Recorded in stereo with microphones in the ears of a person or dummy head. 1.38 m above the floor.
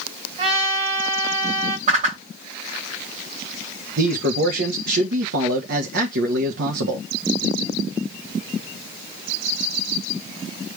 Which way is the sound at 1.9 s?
45° right (ahead or behind).